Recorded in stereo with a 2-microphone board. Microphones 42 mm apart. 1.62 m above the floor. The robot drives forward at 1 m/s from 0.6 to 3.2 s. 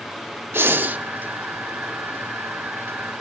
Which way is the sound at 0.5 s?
60° right (ahead or behind).